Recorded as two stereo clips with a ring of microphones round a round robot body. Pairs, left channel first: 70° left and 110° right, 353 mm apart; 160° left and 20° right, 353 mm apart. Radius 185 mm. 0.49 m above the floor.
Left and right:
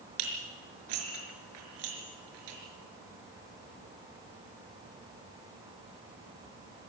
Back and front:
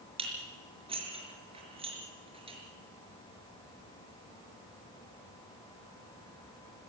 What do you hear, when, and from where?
0.2 s dishes clattering: 100° right, 5 m